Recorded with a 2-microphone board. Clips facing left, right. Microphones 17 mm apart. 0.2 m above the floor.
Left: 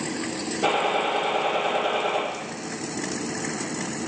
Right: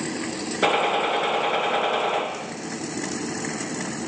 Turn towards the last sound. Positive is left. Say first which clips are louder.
# right 2 dB
turn(degrees=-55)  # may be behind; listen again after turning